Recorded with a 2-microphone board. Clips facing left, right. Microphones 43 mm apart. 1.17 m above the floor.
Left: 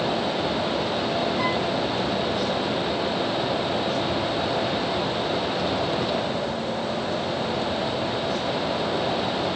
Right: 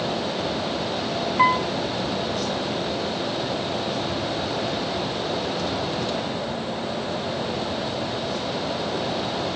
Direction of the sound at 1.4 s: 50° right (ahead or behind).